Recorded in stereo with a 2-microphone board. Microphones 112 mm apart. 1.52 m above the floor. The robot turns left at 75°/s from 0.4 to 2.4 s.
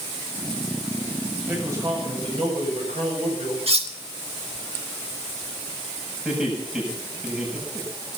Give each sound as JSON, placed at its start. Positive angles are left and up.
{"t": 1.5, "sound": "a man speaking", "azimuth_deg": -10, "distance_m": 7.5}
{"t": 3.7, "sound": "cutlery clinking", "side_deg": -65, "distance_m": 1.8}
{"t": 6.2, "sound": "laughter", "side_deg": -5, "distance_m": 8.0}